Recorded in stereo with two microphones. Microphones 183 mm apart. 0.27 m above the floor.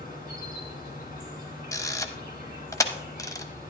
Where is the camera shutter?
15° left (ahead or behind), 0.7 m.